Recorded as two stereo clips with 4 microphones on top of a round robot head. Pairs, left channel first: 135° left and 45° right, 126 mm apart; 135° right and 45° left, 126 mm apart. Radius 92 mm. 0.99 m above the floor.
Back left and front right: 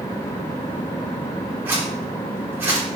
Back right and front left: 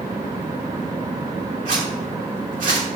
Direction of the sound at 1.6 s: 35° left.